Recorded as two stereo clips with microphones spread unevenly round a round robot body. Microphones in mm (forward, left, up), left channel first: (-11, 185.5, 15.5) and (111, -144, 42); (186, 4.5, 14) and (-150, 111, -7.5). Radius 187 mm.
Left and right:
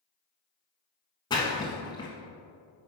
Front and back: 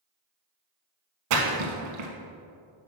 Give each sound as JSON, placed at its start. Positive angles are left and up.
{"t": 1.3, "sound": "a splash", "azimuth_deg": -170, "distance_m": 1.2}